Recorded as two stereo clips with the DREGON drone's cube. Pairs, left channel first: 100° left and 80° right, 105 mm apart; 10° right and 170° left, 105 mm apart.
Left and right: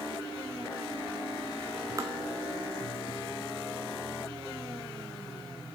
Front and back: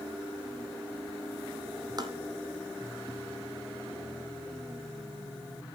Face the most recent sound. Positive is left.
turn(degrees=-140)